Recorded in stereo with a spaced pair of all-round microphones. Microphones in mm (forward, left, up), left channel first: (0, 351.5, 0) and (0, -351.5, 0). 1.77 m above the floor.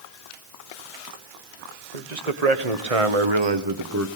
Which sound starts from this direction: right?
A man speaking, at 1.9 s.